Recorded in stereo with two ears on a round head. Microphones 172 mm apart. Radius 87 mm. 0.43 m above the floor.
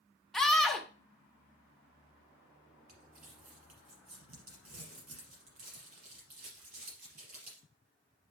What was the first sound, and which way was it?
A scream, centre (ahead or behind).